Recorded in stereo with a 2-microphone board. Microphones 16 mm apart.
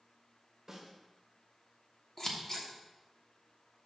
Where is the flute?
I don't hear a flute.